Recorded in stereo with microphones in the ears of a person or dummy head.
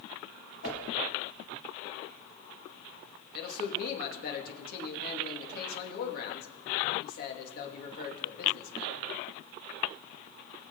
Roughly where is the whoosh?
Left.